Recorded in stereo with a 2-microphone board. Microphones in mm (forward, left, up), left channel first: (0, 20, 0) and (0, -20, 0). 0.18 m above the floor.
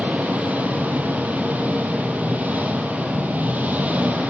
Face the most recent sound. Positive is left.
turn(degrees=-45)  # may be behind; listen again after turning